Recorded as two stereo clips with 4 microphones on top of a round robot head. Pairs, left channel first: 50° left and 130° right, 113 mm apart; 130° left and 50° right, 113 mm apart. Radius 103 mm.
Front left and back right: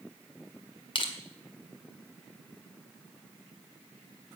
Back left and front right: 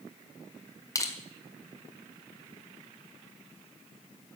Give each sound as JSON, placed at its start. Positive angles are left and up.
{"t": 0.9, "sound": "crushing", "azimuth_deg": 75, "distance_m": 1.9}